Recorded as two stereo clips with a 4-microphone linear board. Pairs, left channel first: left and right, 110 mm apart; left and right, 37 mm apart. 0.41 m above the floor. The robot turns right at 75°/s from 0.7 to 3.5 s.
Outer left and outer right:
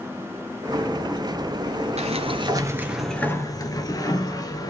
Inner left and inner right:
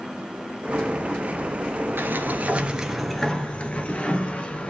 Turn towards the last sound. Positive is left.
turn(degrees=35)